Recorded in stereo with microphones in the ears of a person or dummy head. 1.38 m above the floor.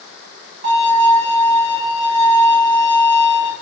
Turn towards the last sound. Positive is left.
turn(degrees=-25)  # may be behind; listen again after turning